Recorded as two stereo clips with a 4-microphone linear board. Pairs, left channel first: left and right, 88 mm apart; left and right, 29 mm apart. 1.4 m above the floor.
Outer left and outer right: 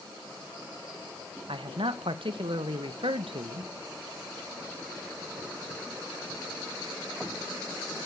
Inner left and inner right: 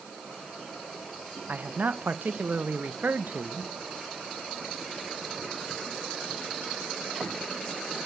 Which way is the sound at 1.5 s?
80° right.